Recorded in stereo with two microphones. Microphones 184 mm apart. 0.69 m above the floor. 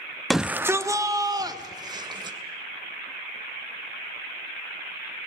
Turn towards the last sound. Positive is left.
turn(degrees=-25)  # may be behind; listen again after turning